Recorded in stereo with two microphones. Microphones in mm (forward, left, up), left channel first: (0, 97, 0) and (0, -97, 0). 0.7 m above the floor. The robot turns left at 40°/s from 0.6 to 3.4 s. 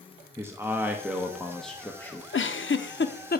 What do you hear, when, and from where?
0.4 s a man speaking: 15° right (ahead or behind), 0.9 m; by 2.2 s 10° left (ahead or behind), 0.9 m
2.3 s a giggle: 85° left, 0.5 m; by 3.4 s 50° left (ahead or behind), 0.5 m